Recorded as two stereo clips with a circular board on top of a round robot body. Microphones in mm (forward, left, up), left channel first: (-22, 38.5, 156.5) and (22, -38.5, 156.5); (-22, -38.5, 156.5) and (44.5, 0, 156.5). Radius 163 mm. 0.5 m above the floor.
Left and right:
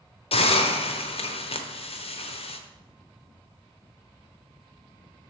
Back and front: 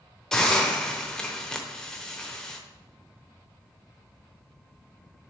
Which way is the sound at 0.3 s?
125° left.